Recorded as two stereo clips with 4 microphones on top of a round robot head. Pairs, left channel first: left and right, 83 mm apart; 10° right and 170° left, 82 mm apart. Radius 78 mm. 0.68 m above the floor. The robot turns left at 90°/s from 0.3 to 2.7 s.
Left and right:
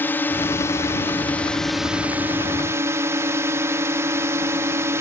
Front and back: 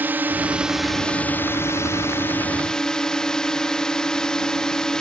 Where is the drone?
130° left; by 5.0 s 85° right.